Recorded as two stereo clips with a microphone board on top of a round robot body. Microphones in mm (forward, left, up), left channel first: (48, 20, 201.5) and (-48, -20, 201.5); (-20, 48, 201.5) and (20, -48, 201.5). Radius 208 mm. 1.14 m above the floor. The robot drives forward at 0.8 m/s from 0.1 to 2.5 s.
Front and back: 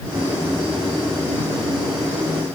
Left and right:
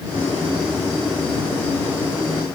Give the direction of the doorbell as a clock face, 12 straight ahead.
I don't hear a doorbell.